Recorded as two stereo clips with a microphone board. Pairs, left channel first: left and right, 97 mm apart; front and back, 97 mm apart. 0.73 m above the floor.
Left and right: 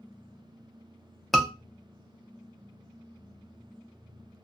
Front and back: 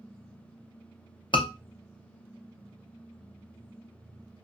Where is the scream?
Straight ahead, 0.8 m.